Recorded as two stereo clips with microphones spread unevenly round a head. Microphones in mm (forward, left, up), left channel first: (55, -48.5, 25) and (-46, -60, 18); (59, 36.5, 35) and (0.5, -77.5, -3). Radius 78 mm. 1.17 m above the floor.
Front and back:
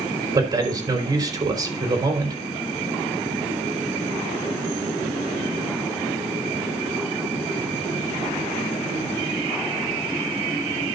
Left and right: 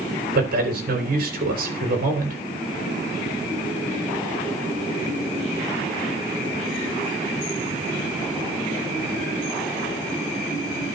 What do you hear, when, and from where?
0.3 s a man speaking: 125° right, 3.5 m